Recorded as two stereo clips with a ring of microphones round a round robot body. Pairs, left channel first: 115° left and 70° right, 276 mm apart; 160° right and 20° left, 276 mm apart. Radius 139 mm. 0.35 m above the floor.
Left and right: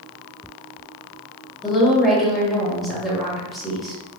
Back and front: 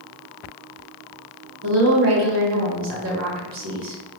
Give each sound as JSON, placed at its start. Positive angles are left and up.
{"t": 1.6, "sound": "a woman speaking", "azimuth_deg": 20, "distance_m": 1.4}